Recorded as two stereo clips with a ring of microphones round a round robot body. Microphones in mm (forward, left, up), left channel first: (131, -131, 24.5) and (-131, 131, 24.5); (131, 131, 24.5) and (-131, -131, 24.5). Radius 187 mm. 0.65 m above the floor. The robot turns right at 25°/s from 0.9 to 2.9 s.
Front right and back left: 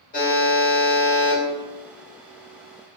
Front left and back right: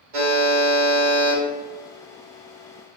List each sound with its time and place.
0.1 s a buzzer: 110° right, 1.7 m; by 1.4 s 100° right, 1.7 m